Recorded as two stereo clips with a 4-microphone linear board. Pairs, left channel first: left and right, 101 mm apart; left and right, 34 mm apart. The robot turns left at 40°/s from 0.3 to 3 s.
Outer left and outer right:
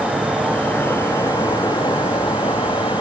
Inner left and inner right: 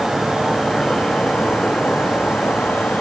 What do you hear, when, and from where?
0.0 s an insect: straight behind, 2.5 m; by 3.0 s 70° left, 2.5 m